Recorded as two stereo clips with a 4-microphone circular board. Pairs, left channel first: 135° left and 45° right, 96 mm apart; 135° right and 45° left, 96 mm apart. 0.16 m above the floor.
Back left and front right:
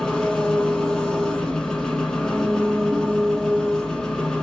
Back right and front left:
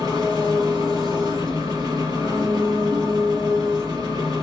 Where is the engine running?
55° left, 1.2 m.